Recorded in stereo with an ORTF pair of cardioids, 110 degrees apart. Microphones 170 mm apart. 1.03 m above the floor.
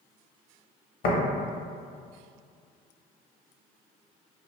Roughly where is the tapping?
Ahead left.